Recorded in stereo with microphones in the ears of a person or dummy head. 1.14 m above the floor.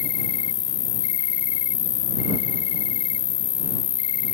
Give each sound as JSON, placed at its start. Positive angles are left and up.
{"t": 0.0, "sound": "an insect", "side_deg": 35}